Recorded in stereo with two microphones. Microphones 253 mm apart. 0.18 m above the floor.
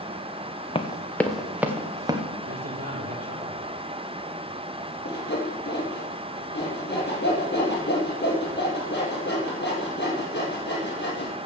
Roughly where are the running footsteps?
Left.